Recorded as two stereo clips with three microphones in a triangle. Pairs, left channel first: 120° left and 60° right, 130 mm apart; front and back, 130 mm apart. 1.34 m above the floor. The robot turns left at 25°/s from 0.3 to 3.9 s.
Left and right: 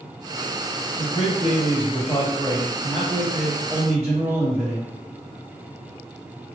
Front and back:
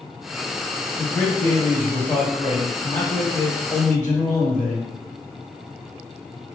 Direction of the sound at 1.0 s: 85° left.